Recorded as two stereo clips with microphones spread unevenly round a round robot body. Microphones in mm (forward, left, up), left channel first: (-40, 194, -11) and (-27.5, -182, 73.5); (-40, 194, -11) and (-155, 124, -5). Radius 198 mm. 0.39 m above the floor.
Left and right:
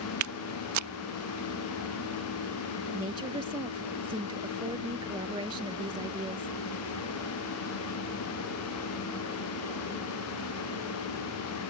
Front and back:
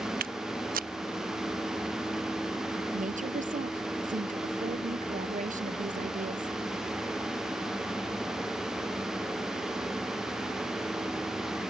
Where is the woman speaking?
165° right.